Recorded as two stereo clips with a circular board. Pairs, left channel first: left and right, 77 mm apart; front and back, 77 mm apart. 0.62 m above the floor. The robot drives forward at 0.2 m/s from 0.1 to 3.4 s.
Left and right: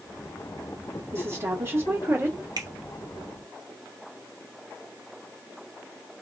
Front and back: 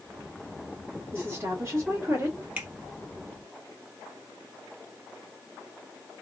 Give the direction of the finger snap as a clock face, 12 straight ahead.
4 o'clock.